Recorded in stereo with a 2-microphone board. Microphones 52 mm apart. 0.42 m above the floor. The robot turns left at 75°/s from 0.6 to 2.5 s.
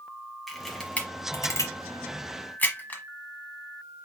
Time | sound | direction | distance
0.5 | a camera shutter | centre (ahead or behind) | 1.4 m